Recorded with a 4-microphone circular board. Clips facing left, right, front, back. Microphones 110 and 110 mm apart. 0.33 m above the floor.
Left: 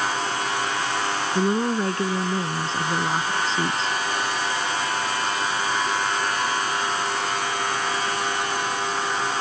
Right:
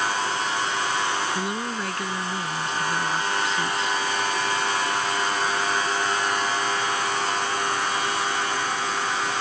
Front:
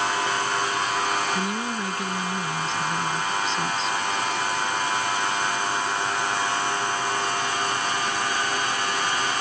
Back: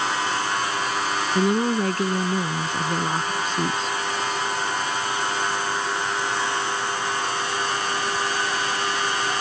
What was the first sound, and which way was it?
A woman speaking, 145° left.